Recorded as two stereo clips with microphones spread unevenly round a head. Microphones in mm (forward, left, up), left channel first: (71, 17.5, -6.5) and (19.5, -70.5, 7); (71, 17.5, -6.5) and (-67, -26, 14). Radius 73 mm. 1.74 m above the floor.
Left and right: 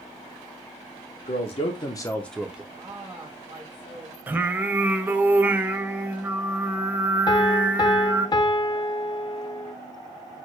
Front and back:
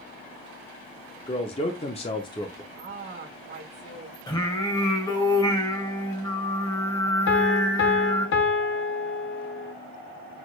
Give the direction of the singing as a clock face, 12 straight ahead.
2 o'clock.